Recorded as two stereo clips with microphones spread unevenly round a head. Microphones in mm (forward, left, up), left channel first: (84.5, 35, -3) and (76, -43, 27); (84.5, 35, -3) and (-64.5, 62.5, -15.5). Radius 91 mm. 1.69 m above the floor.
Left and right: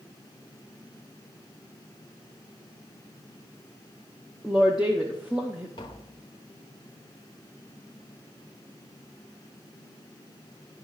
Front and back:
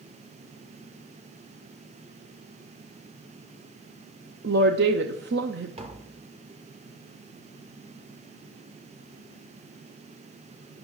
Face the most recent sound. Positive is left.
turn(degrees=145)